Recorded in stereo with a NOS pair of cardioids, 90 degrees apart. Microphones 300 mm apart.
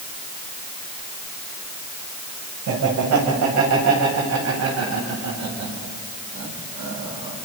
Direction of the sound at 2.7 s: 60° right.